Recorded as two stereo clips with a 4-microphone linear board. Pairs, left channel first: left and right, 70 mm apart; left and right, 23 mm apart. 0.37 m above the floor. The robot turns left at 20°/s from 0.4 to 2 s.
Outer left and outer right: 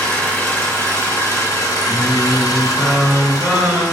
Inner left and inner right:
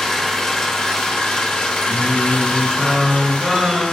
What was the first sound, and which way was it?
An engine running, 155° left.